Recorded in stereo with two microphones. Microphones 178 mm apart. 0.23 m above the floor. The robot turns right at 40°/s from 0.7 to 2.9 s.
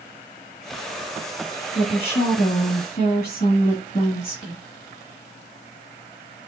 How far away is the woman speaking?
About 1.8 m.